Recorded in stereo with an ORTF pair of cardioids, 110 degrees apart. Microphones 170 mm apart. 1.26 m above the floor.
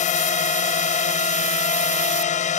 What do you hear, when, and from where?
0.0 s a drone: 45° left